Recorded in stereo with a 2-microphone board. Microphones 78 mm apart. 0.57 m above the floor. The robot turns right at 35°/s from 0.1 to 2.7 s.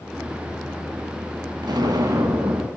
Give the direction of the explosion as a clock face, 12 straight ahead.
2 o'clock.